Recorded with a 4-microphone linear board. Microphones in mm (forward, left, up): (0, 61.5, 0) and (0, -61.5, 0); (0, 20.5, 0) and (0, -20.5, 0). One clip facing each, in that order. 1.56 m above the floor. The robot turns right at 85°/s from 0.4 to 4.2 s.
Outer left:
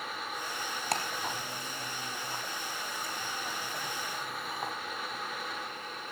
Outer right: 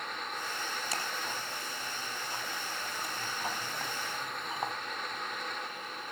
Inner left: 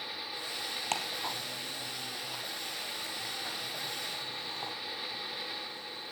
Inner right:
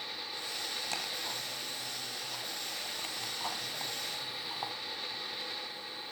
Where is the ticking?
60° left (ahead or behind), 4.5 m; by 4.7 s 15° right (ahead or behind), 4.5 m.